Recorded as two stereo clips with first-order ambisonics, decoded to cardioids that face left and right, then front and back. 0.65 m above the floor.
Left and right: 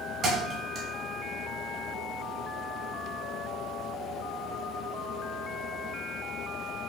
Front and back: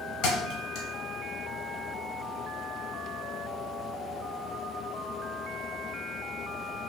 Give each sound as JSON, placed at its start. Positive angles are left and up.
{"t": 0.2, "sound": "a thud", "azimuth_deg": -30, "distance_m": 0.9}